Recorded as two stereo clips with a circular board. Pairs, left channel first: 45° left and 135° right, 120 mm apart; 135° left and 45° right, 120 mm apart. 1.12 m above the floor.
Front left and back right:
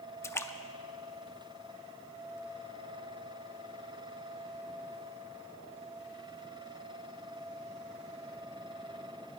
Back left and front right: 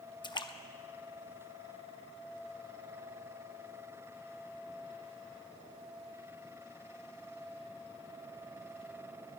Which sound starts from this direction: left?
A splash, at 0.2 s.